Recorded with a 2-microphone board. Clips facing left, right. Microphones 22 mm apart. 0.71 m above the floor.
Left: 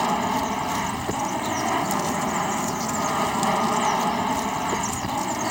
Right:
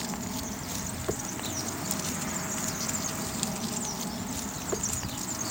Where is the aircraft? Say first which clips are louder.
Left 12 dB; 75° left (ahead or behind).